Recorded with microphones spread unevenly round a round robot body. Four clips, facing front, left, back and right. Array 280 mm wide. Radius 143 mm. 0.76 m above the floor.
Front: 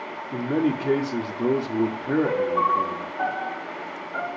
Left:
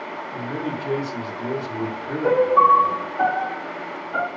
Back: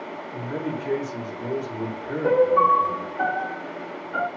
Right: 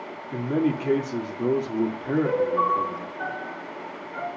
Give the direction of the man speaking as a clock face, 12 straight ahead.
1 o'clock.